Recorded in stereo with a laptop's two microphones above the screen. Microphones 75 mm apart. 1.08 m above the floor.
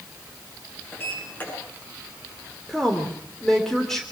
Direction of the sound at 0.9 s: 25° left (ahead or behind).